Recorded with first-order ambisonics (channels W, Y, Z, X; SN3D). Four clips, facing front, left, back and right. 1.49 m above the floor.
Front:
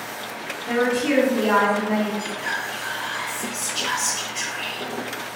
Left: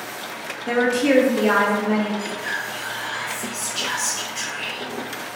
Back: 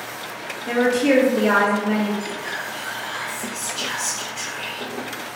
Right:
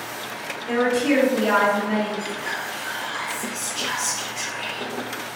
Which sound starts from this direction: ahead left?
Whispering, at 2.2 s.